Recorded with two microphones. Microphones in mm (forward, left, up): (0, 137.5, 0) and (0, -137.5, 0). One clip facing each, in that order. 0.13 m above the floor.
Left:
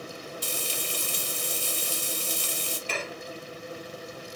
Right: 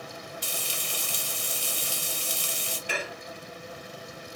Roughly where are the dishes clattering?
Centre.